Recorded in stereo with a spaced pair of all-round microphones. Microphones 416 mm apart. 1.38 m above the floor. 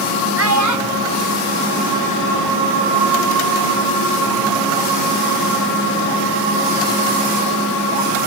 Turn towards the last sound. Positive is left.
turn(degrees=-85)